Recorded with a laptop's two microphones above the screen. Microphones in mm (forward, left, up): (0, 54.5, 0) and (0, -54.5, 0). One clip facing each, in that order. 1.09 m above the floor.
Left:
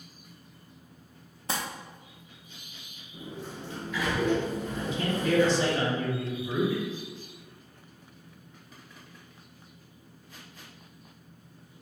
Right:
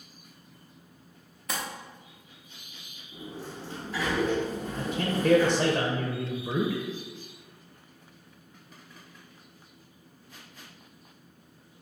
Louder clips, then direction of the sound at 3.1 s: Even; 35° right (ahead or behind).